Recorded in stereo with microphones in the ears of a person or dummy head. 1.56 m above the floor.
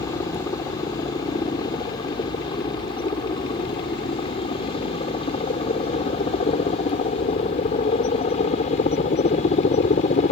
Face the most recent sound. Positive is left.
turn(degrees=50)  # may be behind; listen again after turning